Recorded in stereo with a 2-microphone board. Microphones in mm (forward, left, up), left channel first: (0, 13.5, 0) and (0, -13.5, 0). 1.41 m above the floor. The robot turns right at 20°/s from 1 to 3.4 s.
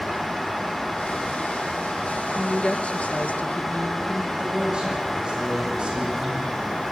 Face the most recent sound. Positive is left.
turn(degrees=-35)  # may be behind; listen again after turning